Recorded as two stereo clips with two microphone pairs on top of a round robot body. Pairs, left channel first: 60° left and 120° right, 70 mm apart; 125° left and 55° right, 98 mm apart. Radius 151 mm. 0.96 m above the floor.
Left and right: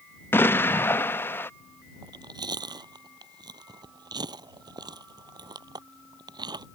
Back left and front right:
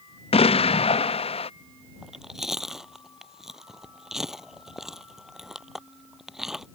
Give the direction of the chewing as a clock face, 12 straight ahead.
5 o'clock.